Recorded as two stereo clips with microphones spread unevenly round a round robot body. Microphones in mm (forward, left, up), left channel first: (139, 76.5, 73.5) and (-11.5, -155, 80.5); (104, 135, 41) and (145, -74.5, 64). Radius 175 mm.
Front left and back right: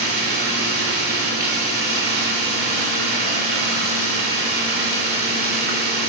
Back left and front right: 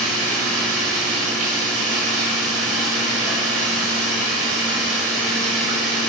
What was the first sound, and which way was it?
Running water, 70° right.